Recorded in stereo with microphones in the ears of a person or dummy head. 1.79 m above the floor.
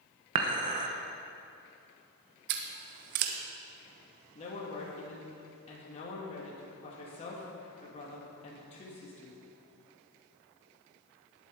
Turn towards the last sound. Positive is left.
turn(degrees=40)  # may be behind; listen again after turning